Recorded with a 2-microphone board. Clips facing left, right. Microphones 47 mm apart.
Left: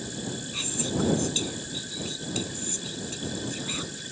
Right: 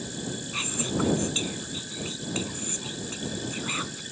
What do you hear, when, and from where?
0.5 s whispering: 35° right (ahead or behind)